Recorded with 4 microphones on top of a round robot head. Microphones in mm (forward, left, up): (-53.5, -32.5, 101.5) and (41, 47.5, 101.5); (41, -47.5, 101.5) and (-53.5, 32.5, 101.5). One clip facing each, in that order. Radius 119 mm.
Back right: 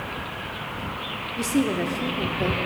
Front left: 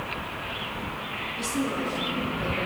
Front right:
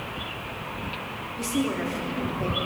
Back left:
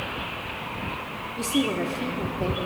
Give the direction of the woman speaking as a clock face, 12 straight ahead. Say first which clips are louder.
Back right 6 dB, back left 2 dB; 5 o'clock.